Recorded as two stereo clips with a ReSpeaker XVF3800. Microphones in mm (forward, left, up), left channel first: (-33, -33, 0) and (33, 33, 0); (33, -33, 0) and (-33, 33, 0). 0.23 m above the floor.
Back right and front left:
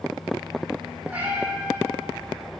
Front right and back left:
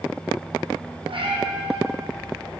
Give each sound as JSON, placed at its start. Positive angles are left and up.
{"t": 1.1, "sound": "a cat meowing", "azimuth_deg": 120, "distance_m": 2.5}